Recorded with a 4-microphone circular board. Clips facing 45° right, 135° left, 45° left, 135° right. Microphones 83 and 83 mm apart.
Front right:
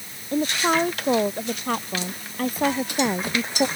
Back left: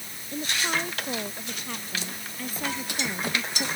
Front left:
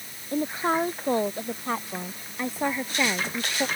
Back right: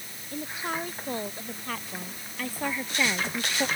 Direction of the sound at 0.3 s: 5° right.